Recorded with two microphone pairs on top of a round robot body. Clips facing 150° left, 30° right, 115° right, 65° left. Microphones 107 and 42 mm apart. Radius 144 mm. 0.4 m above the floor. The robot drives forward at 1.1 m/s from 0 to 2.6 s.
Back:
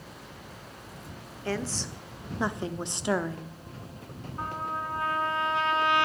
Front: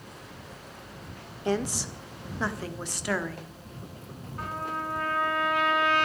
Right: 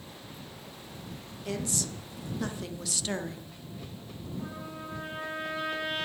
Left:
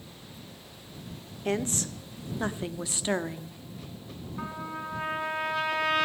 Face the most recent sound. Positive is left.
turn(degrees=85)